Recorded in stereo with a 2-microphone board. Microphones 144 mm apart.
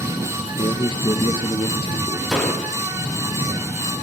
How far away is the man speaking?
About 1.9 m.